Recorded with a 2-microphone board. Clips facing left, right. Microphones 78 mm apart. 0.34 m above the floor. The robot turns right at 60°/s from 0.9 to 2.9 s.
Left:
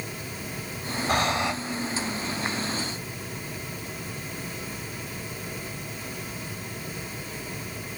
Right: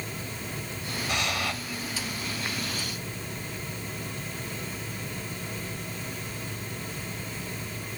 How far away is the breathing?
About 0.7 m.